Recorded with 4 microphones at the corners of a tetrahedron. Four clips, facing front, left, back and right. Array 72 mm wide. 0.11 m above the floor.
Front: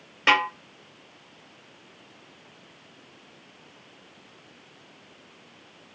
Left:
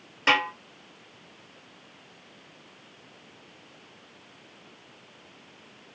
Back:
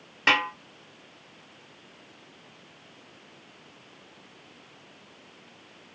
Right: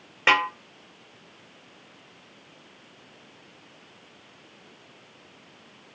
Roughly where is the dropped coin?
I don't hear a dropped coin.